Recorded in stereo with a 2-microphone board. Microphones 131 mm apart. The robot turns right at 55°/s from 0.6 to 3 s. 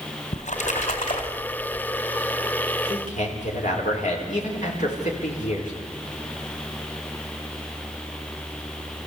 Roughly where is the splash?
Left.